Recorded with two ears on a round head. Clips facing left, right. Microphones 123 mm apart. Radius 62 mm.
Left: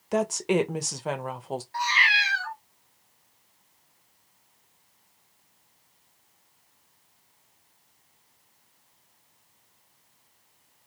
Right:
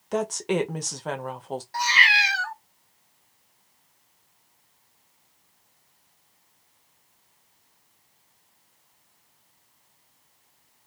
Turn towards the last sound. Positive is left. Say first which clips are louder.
# right 3 dB
turn(degrees=-45)  # may be behind; listen again after turning